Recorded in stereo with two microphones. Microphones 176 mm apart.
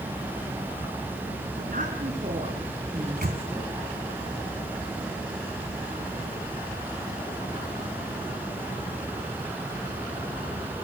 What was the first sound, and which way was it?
A woman speaking, 55° right (ahead or behind).